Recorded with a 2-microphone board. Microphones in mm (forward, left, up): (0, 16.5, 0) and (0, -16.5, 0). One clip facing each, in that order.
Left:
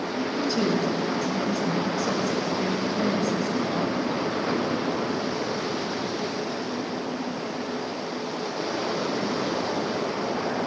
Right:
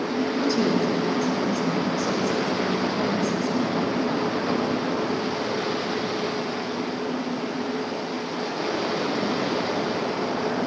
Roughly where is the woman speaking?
Centre.